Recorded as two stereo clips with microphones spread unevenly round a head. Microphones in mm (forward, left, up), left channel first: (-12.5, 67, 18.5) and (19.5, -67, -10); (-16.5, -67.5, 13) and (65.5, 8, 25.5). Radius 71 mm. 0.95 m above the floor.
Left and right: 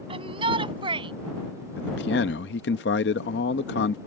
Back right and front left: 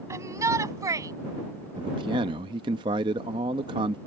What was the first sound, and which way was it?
A shout, 20° right.